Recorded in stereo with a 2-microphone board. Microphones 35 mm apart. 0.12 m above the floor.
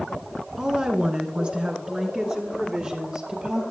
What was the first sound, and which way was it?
A woman speaking, 20° right (ahead or behind).